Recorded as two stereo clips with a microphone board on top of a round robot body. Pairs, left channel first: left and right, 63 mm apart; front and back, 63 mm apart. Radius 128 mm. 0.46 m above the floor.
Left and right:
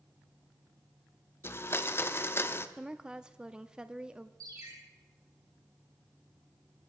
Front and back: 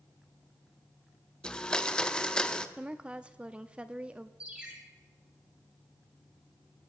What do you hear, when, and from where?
1.4 s a blender: 70° left, 0.8 m
2.8 s a woman speaking: 145° right, 0.7 m
4.4 s a ringtone: 110° right, 3 m